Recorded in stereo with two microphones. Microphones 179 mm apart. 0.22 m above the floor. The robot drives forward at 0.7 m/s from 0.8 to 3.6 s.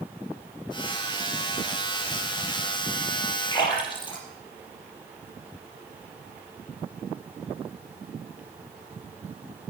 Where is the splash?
25° left (ahead or behind), 4.5 m.